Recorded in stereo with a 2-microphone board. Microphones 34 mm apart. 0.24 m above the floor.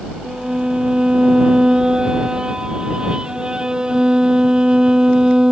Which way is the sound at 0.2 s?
25° right (ahead or behind).